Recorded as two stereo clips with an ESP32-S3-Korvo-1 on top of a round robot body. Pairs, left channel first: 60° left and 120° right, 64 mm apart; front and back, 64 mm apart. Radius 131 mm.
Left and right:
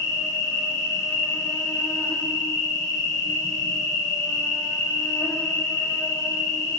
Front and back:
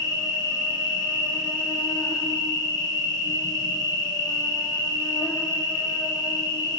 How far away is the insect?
About 0.8 m.